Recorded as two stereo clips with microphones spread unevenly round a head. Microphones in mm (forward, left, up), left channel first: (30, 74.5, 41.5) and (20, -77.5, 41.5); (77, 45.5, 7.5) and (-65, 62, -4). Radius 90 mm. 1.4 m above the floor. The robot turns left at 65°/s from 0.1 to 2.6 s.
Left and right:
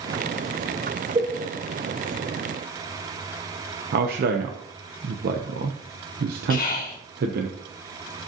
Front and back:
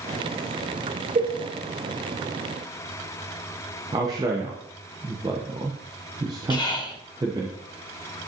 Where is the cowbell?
150° right, 0.8 m; by 1.4 s 160° right, 0.8 m.